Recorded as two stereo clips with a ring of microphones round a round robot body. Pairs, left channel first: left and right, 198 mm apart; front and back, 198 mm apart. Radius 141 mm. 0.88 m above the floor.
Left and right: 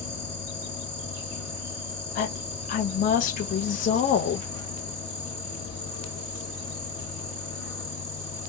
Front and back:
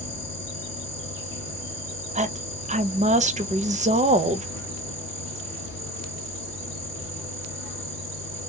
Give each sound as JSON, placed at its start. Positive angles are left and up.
{"t": 0.0, "sound": "an insect", "azimuth_deg": -95, "distance_m": 1.5}
{"t": 2.1, "sound": "a woman speaking", "azimuth_deg": 130, "distance_m": 0.5}